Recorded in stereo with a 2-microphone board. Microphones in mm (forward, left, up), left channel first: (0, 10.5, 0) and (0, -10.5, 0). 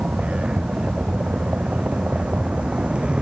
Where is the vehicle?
85° right; by 3.2 s 55° right (ahead or behind).